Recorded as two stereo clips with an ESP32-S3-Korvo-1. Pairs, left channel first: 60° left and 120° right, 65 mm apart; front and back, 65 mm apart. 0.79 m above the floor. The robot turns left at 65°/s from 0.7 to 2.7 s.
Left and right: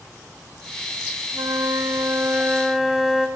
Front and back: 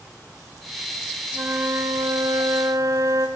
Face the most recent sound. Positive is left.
turn(degrees=155)